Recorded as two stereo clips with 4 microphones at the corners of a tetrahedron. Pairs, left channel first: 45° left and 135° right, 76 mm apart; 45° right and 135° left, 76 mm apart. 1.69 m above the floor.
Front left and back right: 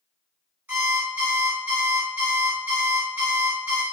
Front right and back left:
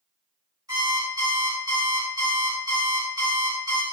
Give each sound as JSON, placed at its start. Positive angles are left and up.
{"t": 0.7, "sound": "an alarm clock", "azimuth_deg": 170, "distance_m": 2.0}